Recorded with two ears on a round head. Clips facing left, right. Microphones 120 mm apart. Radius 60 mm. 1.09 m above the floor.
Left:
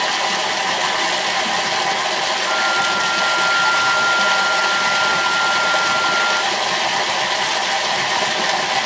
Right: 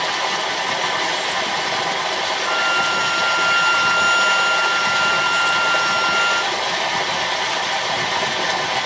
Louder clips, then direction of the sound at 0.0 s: Left 2 dB; 55° left (ahead or behind).